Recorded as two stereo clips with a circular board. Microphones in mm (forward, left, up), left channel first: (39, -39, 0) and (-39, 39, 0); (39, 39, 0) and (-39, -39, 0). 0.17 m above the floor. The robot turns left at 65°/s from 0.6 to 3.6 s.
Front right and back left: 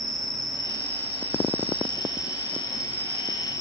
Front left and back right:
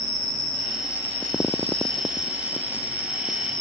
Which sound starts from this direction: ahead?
An insect, at 0.0 s.